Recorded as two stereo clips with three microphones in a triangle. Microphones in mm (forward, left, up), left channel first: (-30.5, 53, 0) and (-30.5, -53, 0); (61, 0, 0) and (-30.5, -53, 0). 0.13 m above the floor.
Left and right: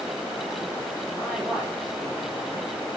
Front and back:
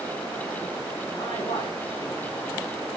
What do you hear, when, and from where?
1.1 s a man speaking: 5° left, 6.5 m